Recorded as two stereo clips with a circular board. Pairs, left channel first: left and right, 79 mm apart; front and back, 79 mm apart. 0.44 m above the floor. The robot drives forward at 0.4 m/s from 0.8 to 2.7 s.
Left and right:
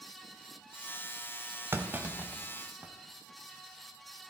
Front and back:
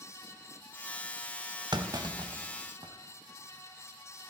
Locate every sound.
1.7 s a clunk: 155° right, 0.7 m; by 2.9 s 160° right, 1.1 m